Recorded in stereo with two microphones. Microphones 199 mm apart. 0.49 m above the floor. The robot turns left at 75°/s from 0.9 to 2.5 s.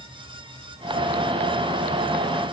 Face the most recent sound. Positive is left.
No sound to turn to.